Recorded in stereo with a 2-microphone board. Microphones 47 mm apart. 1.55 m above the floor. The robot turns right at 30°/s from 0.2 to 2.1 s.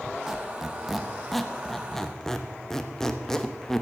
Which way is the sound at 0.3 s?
5° right (ahead or behind).